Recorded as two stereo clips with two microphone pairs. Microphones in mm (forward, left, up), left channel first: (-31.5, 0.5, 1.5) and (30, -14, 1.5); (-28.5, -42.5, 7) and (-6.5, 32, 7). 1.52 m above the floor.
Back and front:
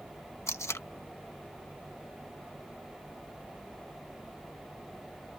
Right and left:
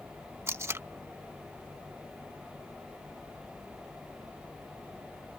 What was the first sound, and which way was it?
Tape being pulled, 125° left.